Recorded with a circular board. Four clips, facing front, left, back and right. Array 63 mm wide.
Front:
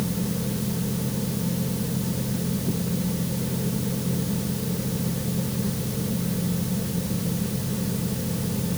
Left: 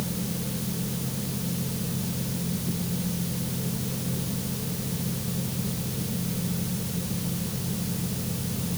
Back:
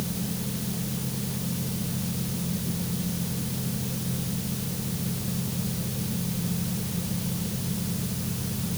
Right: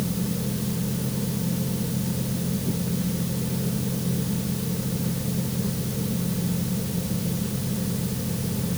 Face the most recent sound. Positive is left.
No sound to turn to.